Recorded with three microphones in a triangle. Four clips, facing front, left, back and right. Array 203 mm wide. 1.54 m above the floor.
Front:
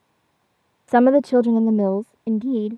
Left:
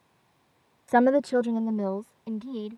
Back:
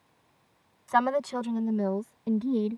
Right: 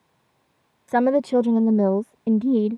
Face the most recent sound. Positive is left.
turn(degrees=-70)